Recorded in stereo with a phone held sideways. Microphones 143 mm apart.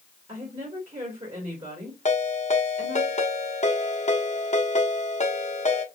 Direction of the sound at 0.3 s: 50° right (ahead or behind).